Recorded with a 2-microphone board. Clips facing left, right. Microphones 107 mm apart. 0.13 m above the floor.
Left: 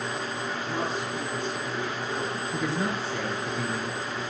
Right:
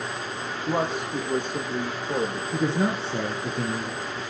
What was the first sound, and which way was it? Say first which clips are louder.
A man speaking: right 7 dB; 60° right (ahead or behind).